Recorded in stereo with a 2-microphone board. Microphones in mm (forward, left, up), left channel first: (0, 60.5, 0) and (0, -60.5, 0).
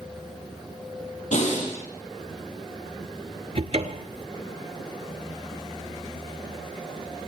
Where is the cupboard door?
55° right (ahead or behind), 1.1 m.